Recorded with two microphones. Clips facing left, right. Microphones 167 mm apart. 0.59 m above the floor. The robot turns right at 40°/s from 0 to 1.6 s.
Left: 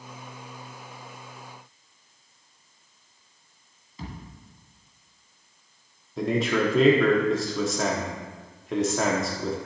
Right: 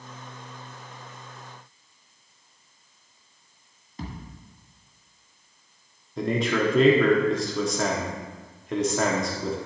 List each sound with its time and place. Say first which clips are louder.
4.0 s a thud: right 2 dB; 55° right (ahead or behind), 1.9 m
6.2 s a man speaking: even; centre (ahead or behind), 0.9 m